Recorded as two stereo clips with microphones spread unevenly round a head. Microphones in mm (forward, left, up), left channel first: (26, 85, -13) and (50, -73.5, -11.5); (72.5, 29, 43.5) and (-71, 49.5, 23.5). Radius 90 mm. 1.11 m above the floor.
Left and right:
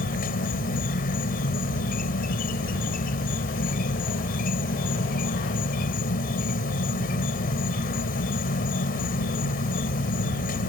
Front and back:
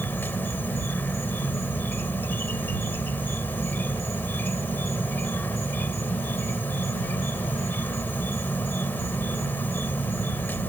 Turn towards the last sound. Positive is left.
turn(degrees=70)